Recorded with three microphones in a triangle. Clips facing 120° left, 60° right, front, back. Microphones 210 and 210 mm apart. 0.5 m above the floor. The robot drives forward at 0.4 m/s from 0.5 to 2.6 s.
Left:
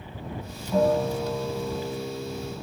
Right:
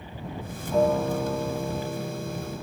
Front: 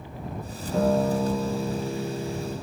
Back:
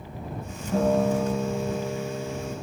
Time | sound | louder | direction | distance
0.7 | a guitar | even, even | 145° right | 1.2 m